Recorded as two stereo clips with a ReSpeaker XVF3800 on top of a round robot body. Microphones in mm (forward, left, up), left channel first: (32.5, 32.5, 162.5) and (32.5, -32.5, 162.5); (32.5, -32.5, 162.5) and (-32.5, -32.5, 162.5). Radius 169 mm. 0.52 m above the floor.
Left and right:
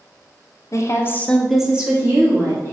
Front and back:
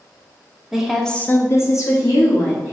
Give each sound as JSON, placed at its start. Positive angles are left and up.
{"t": 0.7, "sound": "a woman speaking", "azimuth_deg": 100, "distance_m": 1.0}